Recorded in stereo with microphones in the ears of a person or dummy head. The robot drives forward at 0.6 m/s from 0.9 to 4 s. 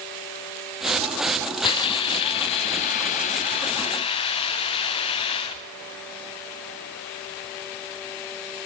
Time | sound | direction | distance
1.6 | a hiss | 30° left (ahead or behind) | 1.4 m